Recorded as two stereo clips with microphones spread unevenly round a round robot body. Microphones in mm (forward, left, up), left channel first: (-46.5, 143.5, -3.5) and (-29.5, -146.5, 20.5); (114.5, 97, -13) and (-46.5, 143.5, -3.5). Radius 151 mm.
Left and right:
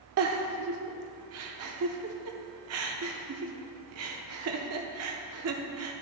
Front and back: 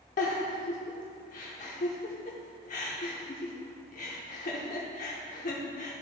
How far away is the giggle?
About 0.6 m.